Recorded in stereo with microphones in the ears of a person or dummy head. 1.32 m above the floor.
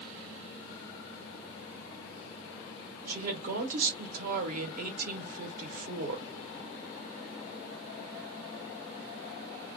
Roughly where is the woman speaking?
Right.